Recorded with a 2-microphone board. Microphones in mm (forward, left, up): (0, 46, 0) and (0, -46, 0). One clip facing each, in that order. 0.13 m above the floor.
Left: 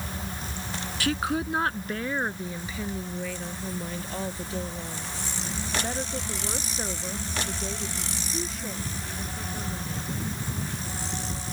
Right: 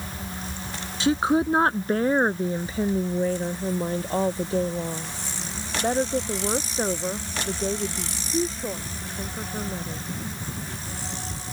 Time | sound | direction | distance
1.0 | a woman speaking | 25° right (ahead or behind) | ?